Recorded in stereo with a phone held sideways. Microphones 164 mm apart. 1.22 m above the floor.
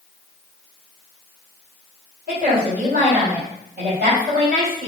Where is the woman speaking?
60° right (ahead or behind), 4 m.